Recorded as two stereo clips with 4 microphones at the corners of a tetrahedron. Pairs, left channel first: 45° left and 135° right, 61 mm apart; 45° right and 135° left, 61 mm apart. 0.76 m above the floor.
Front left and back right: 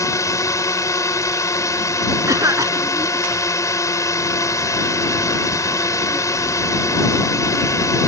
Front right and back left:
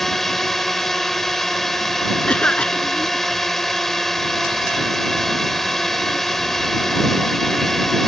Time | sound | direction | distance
0.0 | a drone | 40° left | ?
2.3 | a cough | 115° right | ?